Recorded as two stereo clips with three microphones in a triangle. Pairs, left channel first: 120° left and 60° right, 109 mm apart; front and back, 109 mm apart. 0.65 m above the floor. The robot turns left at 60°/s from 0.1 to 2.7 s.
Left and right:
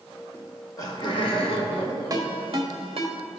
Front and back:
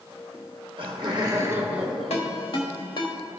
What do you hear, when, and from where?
0.3 s laughter: 165° right, 1.3 m; by 2.9 s 50° left, 1.3 m
2.1 s a ringtone: 5° right, 1.2 m; by 3.2 s 40° right, 1.2 m